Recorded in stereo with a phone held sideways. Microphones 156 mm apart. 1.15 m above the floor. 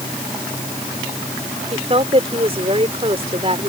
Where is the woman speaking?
40° right (ahead or behind).